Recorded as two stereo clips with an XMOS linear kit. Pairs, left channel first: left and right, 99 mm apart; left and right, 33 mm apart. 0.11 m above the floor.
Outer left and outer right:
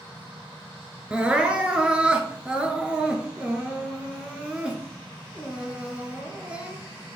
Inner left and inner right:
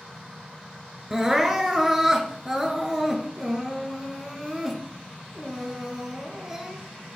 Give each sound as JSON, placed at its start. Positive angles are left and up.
{"t": 1.1, "sound": "crying", "side_deg": -10, "distance_m": 0.9}